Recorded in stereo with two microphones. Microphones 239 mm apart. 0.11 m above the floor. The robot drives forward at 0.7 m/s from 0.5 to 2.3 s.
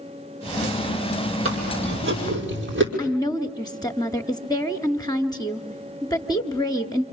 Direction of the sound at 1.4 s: 60° right (ahead or behind).